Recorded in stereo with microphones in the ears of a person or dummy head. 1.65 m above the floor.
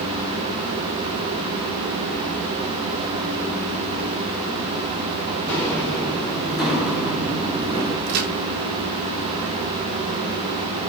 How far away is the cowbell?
I don't hear a cowbell.